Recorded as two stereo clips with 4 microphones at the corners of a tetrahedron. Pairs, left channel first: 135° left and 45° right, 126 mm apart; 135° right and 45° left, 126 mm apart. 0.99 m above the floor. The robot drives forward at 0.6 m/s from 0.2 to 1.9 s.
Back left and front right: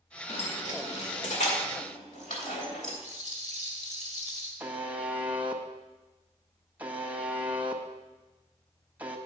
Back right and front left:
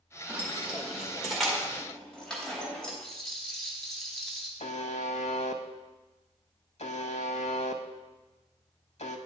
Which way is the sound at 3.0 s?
135° left.